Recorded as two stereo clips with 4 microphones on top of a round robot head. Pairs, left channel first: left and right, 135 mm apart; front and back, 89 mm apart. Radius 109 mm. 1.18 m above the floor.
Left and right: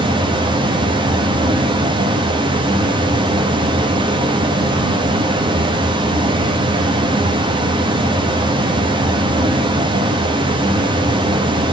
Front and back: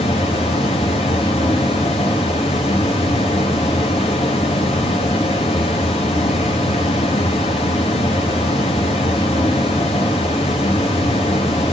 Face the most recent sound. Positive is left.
turn(degrees=-35)